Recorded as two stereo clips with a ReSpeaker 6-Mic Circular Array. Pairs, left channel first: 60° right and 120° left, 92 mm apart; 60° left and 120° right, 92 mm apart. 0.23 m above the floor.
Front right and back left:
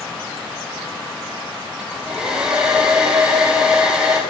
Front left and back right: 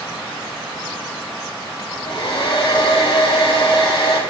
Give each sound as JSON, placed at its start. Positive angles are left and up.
{"t": 1.8, "sound": "a hair dryer", "azimuth_deg": 40, "distance_m": 4.0}